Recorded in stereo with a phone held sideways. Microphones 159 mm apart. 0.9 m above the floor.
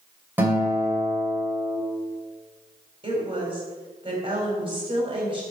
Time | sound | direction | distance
0.4 | a guitar | 15° right (ahead or behind) | 3 m
3.0 | a woman speaking | 35° right (ahead or behind) | 4 m